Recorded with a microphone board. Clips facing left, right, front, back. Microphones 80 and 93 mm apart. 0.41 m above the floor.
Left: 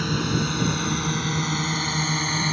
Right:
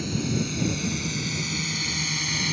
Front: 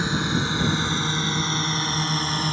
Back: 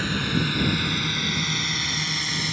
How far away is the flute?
No flute in this recording.